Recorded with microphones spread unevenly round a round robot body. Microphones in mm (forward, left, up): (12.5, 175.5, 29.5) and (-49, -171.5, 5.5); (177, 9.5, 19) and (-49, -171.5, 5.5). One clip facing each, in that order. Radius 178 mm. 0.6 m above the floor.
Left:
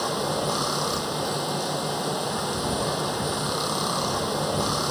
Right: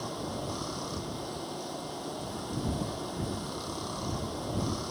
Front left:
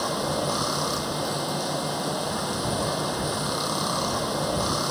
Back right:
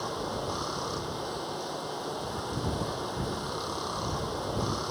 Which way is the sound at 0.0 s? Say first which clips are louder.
Left 9 dB, front left 7 dB; 75° left.